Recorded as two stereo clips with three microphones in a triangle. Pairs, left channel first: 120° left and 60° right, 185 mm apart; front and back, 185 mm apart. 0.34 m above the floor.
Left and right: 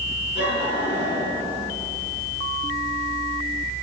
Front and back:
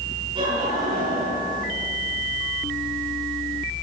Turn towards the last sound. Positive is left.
turn(degrees=115)